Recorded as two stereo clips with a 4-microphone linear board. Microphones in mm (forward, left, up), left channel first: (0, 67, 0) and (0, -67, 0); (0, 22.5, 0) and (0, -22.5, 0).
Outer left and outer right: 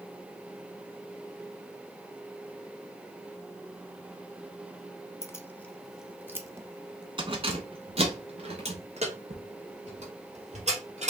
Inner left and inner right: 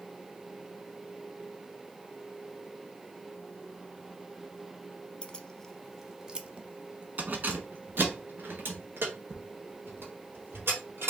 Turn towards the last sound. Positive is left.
turn(degrees=-65)  # may be behind; listen again after turning